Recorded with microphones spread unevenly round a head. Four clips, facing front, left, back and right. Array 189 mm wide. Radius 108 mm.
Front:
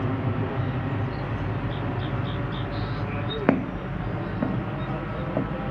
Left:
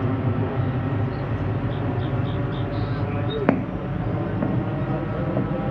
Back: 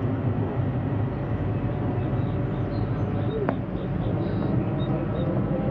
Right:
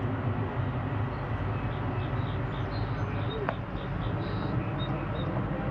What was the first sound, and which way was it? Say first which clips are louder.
An aircraft: left 8 dB, even; 100° left.